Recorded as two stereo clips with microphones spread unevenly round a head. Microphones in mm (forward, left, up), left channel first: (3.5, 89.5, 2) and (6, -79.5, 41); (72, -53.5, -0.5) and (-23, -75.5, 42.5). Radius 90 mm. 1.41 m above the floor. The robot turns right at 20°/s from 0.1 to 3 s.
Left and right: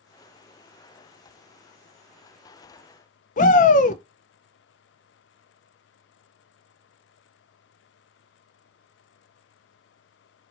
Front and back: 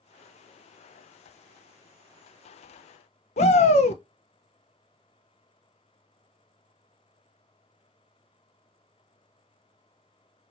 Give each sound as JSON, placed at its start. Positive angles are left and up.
{"t": 3.4, "sound": "a shout", "azimuth_deg": 45, "distance_m": 0.7}